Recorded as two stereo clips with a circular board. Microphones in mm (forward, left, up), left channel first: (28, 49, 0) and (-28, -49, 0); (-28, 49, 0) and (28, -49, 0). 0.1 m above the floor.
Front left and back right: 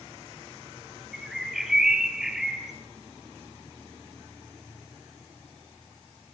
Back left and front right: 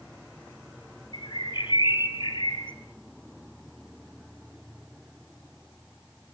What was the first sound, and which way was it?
A bird, 155° left.